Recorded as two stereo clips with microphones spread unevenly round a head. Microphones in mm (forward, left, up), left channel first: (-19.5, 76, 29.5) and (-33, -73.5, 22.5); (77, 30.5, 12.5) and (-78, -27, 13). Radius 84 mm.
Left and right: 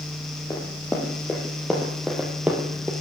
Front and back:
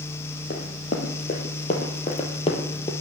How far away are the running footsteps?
About 2.5 m.